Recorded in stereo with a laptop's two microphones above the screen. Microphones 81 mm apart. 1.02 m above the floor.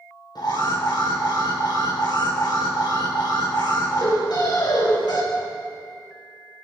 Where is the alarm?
75° left (ahead or behind), 4.5 m.